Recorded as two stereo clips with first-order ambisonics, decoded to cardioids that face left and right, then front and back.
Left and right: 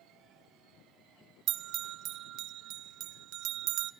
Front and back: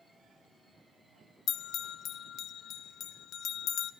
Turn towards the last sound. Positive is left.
turn(degrees=-55)